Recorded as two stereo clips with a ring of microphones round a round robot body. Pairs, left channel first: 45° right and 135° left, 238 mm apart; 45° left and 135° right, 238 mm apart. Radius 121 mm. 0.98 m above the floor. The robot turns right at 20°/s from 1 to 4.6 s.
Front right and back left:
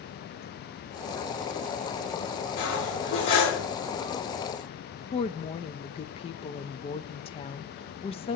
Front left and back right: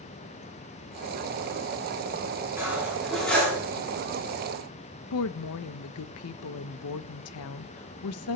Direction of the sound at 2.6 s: 55° right.